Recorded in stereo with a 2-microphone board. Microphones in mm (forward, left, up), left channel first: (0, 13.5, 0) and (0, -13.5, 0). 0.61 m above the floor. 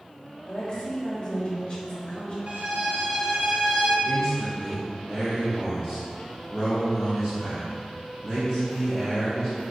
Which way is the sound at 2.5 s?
55° right (ahead or behind).